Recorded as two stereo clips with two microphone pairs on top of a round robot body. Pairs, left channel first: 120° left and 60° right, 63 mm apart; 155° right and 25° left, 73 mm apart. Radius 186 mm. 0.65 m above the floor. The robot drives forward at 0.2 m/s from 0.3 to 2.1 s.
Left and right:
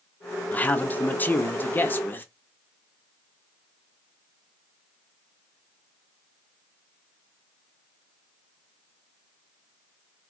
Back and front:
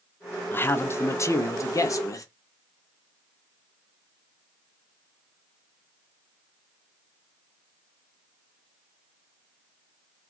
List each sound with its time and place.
0.5 s a man speaking: 155° left, 0.5 m; by 2.2 s 170° left, 0.7 m